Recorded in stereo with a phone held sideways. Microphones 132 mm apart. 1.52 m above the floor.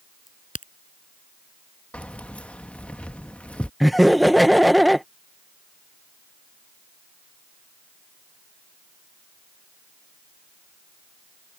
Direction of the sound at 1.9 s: 10° left (ahead or behind).